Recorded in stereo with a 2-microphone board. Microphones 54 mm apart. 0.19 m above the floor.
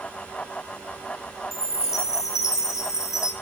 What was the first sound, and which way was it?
A chime, 80° left.